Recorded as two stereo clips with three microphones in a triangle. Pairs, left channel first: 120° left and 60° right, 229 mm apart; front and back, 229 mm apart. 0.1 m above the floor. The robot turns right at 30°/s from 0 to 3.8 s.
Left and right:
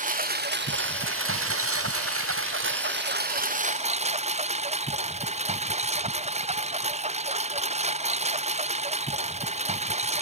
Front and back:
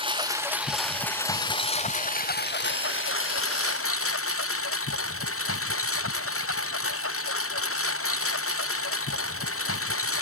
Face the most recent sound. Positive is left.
turn(degrees=0)